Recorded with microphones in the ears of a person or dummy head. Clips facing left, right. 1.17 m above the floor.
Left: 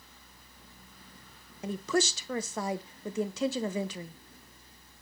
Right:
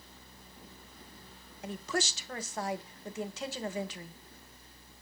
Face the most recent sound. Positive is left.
turn(degrees=70)  # may be behind; listen again after turning